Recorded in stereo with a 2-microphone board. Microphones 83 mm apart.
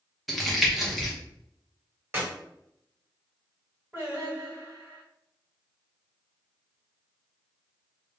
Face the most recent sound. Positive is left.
turn(degrees=-20)  # may be behind; listen again after turning